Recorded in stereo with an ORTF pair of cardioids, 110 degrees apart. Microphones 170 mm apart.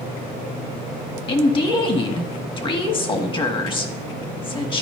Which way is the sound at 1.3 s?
30° left.